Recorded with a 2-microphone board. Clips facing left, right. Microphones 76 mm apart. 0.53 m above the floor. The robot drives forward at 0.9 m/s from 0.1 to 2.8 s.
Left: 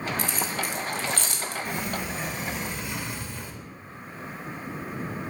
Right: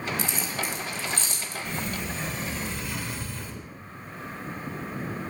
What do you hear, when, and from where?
0.2 s keys jangling: 55° left (ahead or behind), 1.9 m; by 1.6 s 75° left (ahead or behind), 1.6 m
1.6 s a sliding door: 10° left (ahead or behind), 2.5 m; by 3.5 s 15° left (ahead or behind), 1.7 m